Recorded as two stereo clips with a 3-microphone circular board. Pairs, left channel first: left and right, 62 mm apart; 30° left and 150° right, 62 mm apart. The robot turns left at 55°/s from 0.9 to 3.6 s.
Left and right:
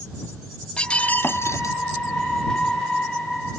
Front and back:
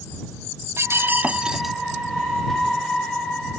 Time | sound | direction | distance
0.8 | breaking glass | 165° left | ?